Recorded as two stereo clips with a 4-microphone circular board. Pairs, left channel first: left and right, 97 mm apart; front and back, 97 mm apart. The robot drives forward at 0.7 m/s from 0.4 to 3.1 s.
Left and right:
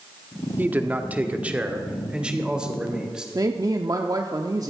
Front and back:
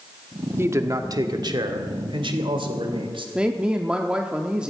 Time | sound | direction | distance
0.6 | a man speaking | 145° right | 1.0 m
3.4 | a woman speaking | 105° right | 0.8 m